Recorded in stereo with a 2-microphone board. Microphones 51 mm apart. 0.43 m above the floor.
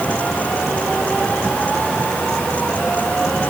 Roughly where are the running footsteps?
No running footsteps in this recording.